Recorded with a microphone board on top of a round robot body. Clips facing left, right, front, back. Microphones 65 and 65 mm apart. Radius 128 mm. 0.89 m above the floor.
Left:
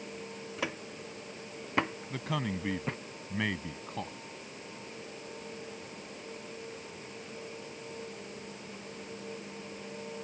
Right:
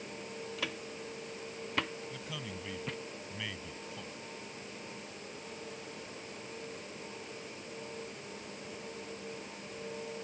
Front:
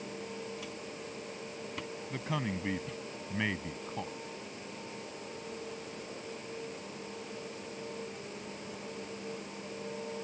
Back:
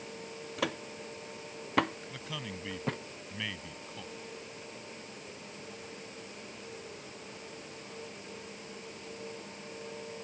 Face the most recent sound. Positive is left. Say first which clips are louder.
# left 8 dB, front 6 dB
turn(degrees=55)